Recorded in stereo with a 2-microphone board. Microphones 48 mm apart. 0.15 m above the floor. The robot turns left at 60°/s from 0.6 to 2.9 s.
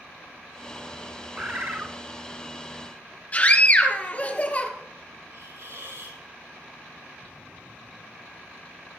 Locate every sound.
1.4 s a bird: 20° right, 1.4 m; by 1.9 s 60° right, 1.4 m
3.3 s a scream: 35° left (ahead or behind), 2.5 m
5.3 s a hiss: 75° right (ahead or behind), 5.5 m